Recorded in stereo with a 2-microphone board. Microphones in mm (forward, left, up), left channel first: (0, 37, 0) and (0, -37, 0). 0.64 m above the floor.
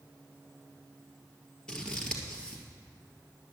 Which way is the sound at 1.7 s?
10° left (ahead or behind).